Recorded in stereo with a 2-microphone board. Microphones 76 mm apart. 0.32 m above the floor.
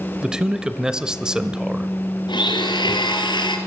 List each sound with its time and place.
0.2 s a man speaking: 10° right (ahead or behind), 1.1 m
2.3 s a blender: 80° left, 2 m